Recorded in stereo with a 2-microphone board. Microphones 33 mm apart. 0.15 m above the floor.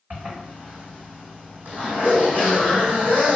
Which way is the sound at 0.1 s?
60° right (ahead or behind).